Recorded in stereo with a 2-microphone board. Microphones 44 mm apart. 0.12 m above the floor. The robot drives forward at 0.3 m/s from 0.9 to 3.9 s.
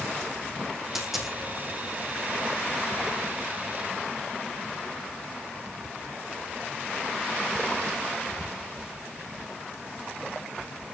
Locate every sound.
0.9 s a dropped coin: 5° right (ahead or behind), 3 m